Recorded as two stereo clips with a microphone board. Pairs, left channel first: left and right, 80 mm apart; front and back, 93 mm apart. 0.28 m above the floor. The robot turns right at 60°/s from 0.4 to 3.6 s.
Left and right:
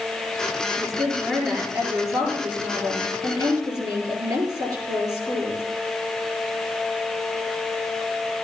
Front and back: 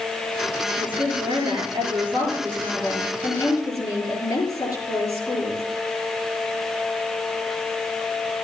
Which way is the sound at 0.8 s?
140° left.